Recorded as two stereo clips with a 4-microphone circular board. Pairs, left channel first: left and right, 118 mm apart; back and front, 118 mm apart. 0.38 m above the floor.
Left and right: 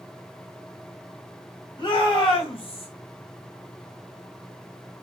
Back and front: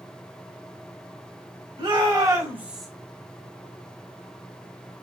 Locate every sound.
1.8 s a shout: 45° left, 1.7 m; by 2.9 s 95° left, 1.1 m